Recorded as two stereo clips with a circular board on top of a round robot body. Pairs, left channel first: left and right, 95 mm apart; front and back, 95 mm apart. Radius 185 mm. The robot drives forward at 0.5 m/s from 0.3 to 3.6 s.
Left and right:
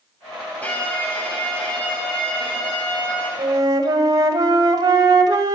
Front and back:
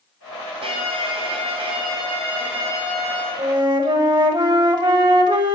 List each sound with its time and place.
0.6 s a violin: 165° left, 3 m; by 3.3 s 170° left, 4.5 m
3.4 s a flute: 140° right, 1.4 m